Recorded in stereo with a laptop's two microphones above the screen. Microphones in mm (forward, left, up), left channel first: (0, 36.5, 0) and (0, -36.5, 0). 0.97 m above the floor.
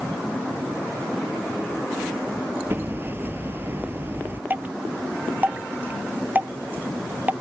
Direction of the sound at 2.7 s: 30° right (ahead or behind).